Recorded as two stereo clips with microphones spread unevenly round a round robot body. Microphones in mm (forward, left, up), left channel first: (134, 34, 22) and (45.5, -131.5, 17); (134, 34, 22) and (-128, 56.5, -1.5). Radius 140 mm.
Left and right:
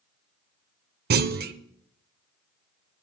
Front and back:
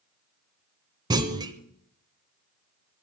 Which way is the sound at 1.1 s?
115° right.